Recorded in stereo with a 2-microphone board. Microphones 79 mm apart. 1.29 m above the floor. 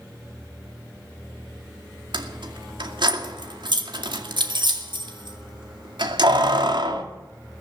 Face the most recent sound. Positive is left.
turn(degrees=-75)  # may be behind; listen again after turning